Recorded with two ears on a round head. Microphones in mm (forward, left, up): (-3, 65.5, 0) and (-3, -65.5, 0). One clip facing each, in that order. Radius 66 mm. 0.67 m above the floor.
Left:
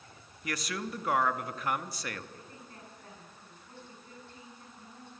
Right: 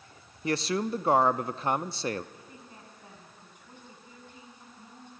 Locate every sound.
0.4 s a man speaking: 25° right (ahead or behind), 0.6 m
2.3 s a woman speaking: 15° right (ahead or behind), 7 m